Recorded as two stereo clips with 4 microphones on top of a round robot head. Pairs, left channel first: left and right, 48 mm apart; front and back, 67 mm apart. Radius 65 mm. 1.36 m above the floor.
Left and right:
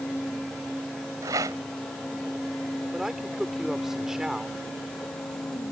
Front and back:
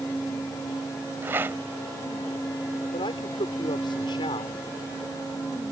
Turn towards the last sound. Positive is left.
turn(degrees=-10)